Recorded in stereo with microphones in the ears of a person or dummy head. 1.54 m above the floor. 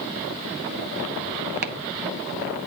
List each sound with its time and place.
1.6 s chopping: 45° right (ahead or behind), 0.6 m